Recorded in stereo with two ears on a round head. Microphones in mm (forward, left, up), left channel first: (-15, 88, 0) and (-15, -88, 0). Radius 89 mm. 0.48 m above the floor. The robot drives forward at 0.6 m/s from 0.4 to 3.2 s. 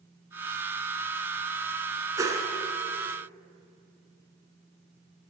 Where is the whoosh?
20° right (ahead or behind), 1.0 m; by 2.5 s 15° right (ahead or behind), 1.2 m.